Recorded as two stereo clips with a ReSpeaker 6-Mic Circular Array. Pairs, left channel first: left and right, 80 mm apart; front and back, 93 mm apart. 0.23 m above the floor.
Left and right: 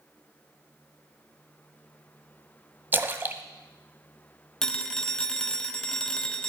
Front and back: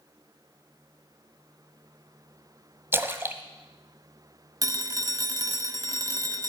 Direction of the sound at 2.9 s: 135° right.